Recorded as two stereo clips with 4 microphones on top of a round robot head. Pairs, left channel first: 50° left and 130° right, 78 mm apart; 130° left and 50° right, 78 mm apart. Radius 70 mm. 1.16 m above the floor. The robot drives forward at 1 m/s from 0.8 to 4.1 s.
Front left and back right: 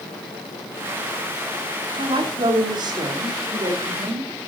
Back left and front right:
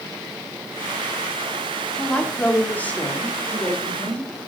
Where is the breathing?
I don't hear breathing.